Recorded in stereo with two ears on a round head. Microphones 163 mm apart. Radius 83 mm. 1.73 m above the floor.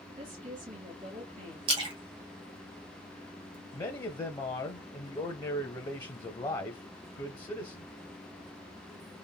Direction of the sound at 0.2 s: 45° right (ahead or behind).